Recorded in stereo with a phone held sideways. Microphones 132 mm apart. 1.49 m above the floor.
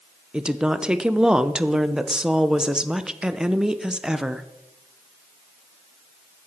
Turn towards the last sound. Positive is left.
turn(degrees=-5)  # may be behind; listen again after turning